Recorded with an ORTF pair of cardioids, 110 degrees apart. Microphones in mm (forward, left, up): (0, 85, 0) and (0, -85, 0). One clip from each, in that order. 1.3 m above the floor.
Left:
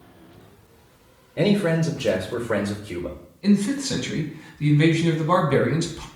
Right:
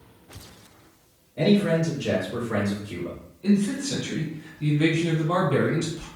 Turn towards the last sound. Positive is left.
turn(degrees=55)